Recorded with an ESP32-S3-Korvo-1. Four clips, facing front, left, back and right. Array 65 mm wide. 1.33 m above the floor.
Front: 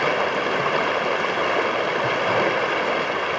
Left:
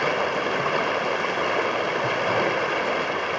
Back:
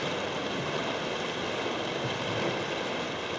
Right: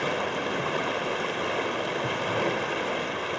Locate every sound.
0.0 s running water: 25° left, 1.9 m